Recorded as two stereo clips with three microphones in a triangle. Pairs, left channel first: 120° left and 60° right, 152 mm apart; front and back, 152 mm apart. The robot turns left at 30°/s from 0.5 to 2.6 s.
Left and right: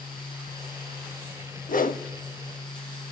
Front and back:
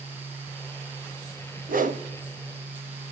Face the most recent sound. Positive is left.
turn(degrees=125)